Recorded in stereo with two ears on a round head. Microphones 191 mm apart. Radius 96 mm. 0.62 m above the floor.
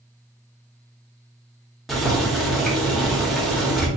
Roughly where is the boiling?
Centre.